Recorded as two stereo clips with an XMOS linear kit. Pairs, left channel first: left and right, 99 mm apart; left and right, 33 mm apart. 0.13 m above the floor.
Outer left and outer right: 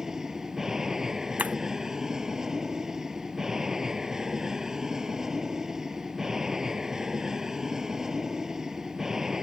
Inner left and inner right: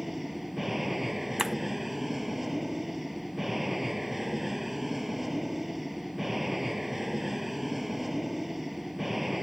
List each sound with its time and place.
0.0 s an aircraft: 5° right (ahead or behind)
1.4 s breaking glass: 15° right (ahead or behind)